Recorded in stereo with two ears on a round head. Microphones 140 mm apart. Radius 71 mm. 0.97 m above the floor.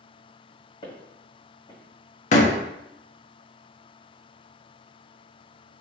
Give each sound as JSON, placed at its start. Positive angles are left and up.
{"t": 0.8, "sound": "footsteps", "side_deg": 35, "distance_m": 2.0}
{"t": 2.3, "sound": "a door slam", "side_deg": 50, "distance_m": 0.9}